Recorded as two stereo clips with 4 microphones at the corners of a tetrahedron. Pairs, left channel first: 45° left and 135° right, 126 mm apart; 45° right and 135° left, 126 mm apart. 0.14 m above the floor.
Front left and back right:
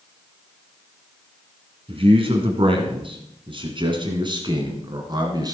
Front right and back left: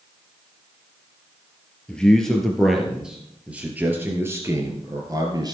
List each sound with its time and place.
1.9 s a man speaking: 125° right, 2.5 m; by 5.5 s straight behind, 2.5 m